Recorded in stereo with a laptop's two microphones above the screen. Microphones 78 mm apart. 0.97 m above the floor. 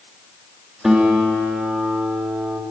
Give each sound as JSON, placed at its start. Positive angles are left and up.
{"t": 0.8, "sound": "a guitar", "side_deg": -5, "distance_m": 1.2}